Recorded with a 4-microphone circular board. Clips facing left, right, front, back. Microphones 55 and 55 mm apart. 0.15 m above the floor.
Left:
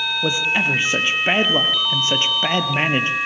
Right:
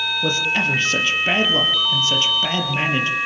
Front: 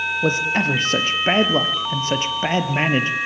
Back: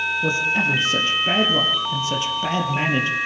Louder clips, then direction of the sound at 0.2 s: Left 1 dB, front 2 dB; 10° left.